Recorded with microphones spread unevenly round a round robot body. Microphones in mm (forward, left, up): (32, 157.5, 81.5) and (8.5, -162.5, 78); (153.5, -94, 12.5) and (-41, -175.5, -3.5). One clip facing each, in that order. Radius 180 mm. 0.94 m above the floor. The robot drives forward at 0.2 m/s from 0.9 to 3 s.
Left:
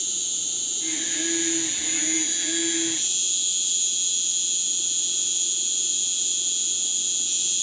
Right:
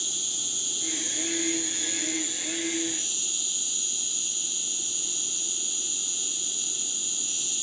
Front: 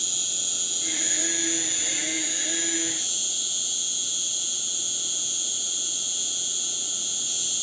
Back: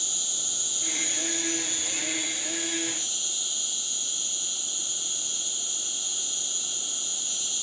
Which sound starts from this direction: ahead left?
An insect, at 0.0 s.